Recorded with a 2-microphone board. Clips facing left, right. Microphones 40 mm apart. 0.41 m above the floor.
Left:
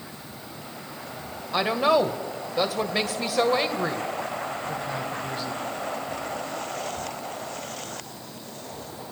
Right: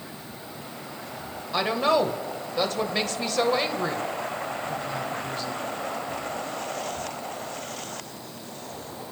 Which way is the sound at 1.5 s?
10° left (ahead or behind).